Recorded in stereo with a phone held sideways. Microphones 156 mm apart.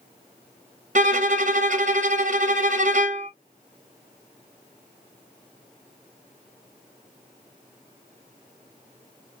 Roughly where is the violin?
Right.